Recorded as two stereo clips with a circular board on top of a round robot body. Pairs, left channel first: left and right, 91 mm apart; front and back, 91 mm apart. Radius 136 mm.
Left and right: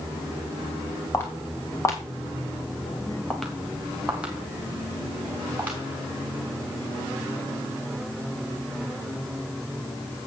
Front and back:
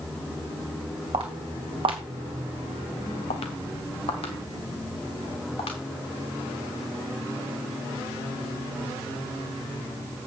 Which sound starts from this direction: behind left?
Footsteps, at 1.1 s.